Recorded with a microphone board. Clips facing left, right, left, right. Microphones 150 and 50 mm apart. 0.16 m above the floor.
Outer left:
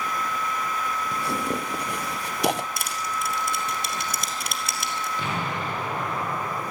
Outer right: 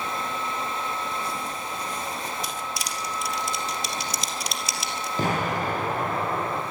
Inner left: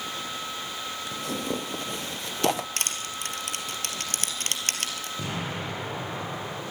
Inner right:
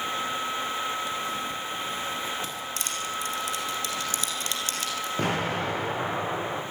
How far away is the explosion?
About 7.5 m.